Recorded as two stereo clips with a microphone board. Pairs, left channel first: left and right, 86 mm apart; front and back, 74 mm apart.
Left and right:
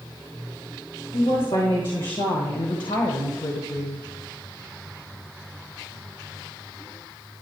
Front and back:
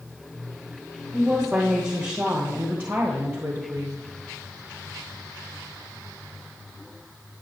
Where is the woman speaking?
100° left, 2 m; by 4.1 s 140° left, 0.8 m.